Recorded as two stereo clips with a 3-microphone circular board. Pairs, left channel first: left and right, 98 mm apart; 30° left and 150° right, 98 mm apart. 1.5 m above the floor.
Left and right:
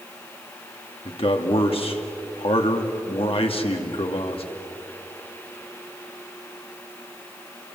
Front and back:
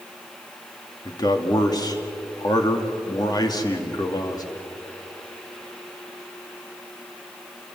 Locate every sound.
1.1 s a man speaking: 75° left, 2.5 m